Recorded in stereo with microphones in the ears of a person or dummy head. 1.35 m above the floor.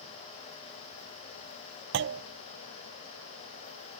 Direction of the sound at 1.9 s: 60° right (ahead or behind).